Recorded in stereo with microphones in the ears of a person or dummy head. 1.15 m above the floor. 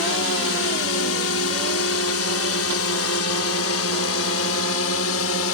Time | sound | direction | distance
0.0 | a drone | 65° left (ahead or behind) | ?